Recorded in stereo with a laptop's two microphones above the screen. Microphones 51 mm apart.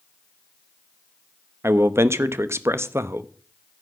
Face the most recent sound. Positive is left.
turn(degrees=-70)  # may be behind; listen again after turning